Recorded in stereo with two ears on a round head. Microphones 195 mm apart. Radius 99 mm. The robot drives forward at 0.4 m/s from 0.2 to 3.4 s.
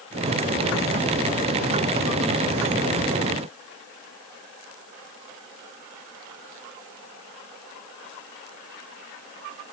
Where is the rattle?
I don't hear a rattle.